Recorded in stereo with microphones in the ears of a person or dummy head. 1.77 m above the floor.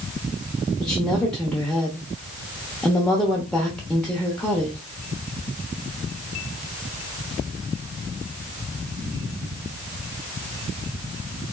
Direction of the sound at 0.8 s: 5° left (ahead or behind).